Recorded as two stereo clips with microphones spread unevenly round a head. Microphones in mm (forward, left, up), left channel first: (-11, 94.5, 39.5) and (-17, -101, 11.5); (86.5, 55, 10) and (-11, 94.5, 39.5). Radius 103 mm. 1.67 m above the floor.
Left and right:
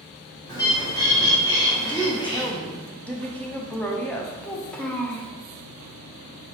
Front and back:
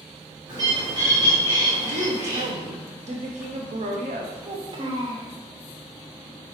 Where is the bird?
150° left, 1.8 m.